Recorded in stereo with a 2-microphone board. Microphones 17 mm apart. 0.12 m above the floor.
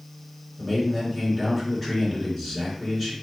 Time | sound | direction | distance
0.6 | a man speaking | 5° left (ahead or behind) | 1.9 m